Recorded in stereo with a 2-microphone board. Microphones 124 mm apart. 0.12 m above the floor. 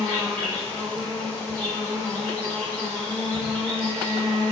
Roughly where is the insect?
Centre.